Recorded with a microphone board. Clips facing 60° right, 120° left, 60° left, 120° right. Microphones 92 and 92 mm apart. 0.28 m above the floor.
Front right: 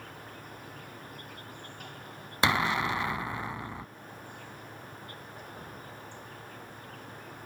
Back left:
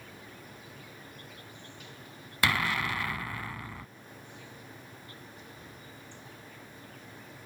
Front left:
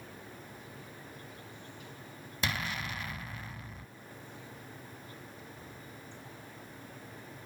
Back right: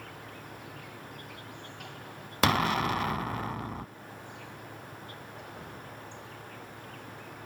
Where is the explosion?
125° right.